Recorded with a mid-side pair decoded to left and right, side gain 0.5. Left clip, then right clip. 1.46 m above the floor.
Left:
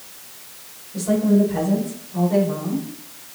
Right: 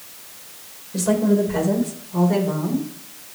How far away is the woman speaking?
About 6 m.